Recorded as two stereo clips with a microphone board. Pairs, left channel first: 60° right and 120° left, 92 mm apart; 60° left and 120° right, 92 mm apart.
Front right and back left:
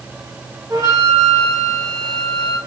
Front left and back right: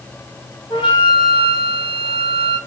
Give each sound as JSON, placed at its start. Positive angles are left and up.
{"t": 0.7, "sound": "a flute", "azimuth_deg": 75, "distance_m": 1.1}